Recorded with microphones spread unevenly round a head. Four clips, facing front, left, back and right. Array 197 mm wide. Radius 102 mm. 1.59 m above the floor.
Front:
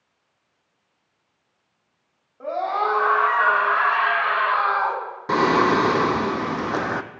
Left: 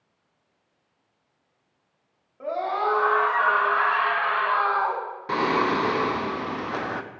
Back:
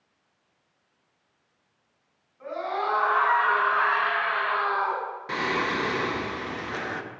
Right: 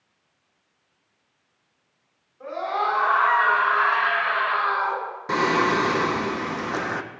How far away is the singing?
About 0.6 m.